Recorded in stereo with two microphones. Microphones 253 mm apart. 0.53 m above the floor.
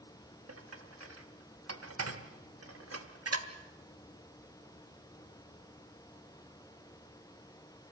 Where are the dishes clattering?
65° right (ahead or behind), 1.3 m.